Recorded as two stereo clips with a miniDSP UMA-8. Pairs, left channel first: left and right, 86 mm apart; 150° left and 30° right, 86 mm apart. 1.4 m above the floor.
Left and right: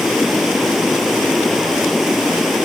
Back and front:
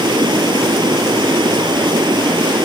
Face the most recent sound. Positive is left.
turn(degrees=0)